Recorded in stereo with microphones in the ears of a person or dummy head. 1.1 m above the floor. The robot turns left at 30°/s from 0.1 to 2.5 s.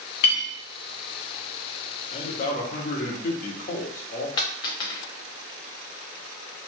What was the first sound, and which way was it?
A clink, 70° left (ahead or behind).